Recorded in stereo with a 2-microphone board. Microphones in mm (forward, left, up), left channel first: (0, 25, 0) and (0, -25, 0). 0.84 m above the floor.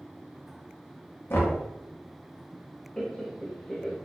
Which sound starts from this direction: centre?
Laughter, at 3.0 s.